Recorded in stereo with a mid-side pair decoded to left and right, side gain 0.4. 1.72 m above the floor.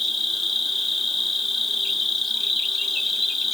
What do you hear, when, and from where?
0.0 s an insect: 40° left, 1.1 m